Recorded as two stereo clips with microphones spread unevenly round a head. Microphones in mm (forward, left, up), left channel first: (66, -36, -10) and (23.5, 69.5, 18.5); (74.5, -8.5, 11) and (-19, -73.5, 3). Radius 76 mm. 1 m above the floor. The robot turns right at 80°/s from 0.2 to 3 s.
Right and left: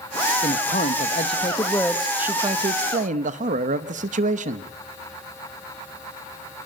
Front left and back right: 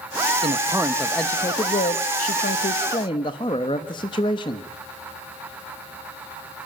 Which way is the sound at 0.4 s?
110° right.